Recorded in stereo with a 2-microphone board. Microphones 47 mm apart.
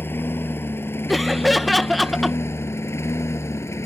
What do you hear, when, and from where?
0.0 s a lawn mower: 50° left (ahead or behind); by 3.9 s 70° left (ahead or behind)
1.1 s laughter: centre (ahead or behind)